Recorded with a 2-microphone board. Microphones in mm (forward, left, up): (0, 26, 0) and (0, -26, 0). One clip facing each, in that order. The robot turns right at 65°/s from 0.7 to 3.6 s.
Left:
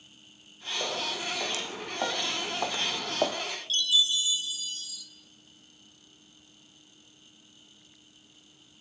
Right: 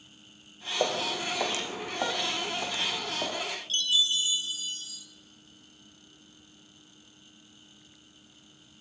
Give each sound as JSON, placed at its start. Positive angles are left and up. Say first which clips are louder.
{"t": 0.8, "sound": "footsteps", "louder": "right 4 dB", "side_deg": -65, "distance_m": 4.5}
{"t": 3.7, "sound": "a chime", "louder": "left 1 dB", "side_deg": -40, "distance_m": 4.0}